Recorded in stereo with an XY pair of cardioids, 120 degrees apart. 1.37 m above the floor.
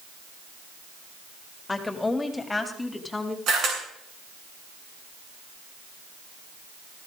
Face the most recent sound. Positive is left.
turn(degrees=-60)